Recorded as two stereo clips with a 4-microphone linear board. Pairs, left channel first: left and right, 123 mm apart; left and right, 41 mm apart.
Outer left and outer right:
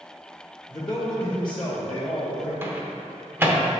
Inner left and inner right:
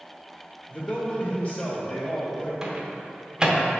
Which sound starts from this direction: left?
A man speaking, at 0.7 s.